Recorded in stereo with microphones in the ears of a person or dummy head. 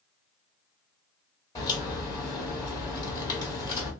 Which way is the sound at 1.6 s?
25° left (ahead or behind).